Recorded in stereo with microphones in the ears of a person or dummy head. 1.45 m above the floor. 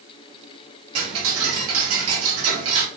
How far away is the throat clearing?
I don't hear throat clearing.